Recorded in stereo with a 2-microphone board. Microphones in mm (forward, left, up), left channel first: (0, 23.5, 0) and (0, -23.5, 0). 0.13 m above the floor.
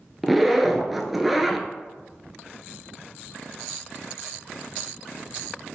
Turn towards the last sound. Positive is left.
turn(degrees=0)  # may be behind; listen again after turning